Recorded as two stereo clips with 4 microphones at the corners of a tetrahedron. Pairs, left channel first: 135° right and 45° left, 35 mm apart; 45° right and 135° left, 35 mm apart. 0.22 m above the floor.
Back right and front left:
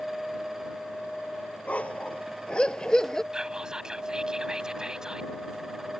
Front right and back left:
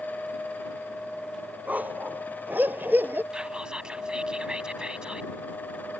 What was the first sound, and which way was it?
A dog barking, straight behind.